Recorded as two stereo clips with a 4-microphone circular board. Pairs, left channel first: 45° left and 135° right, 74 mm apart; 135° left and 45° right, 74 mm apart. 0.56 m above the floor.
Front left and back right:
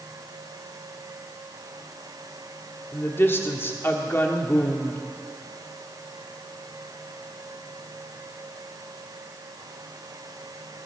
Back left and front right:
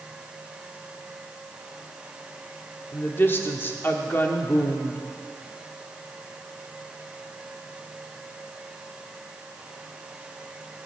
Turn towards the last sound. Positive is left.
turn(degrees=90)